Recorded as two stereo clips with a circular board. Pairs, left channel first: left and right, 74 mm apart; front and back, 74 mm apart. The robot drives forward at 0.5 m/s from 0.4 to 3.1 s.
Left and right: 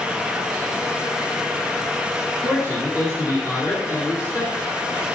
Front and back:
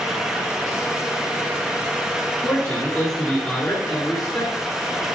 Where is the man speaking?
65° left, 3 m; by 4.7 s 75° left, 2.5 m.